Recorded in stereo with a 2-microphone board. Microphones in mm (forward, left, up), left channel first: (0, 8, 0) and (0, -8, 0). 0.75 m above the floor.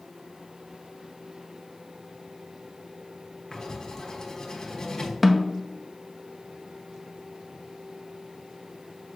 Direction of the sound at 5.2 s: 10° right (ahead or behind).